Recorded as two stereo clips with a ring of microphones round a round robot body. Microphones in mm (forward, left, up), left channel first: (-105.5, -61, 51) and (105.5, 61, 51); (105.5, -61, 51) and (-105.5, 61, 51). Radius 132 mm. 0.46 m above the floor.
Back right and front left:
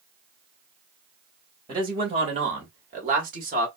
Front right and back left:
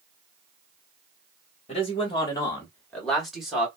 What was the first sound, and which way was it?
A man speaking, 15° right.